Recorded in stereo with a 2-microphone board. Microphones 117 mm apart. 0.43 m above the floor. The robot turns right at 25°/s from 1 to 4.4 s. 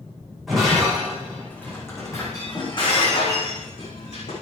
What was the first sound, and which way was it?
Breaking glass, centre (ahead or behind).